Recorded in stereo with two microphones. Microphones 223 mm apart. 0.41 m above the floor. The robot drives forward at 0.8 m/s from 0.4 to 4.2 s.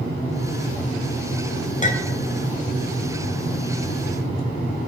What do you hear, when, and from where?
1.8 s a clink: 30° left (ahead or behind), 1.4 m; by 2.2 s 40° left (ahead or behind), 1.2 m